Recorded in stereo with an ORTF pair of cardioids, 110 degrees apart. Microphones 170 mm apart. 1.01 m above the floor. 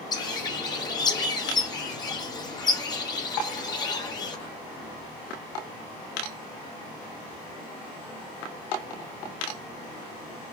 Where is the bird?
25° left, 1.4 m.